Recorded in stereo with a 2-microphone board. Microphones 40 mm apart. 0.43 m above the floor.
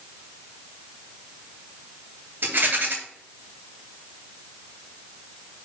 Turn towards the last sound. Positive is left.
turn(degrees=-55)  # may be behind; listen again after turning